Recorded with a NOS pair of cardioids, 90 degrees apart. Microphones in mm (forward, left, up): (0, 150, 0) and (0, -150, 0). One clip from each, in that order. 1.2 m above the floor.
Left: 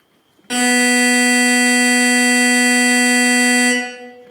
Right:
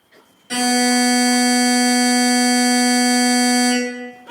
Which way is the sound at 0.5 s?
65° left.